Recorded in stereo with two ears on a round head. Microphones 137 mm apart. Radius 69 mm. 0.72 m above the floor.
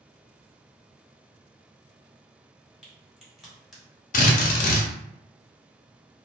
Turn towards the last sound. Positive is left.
turn(degrees=50)  # may be behind; listen again after turning